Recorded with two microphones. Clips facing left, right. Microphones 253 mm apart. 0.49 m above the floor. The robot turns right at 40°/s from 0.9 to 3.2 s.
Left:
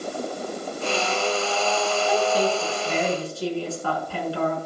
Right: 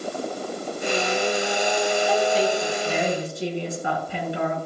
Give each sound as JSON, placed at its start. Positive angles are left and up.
{"t": 2.1, "sound": "a woman speaking", "azimuth_deg": 155, "distance_m": 5.5}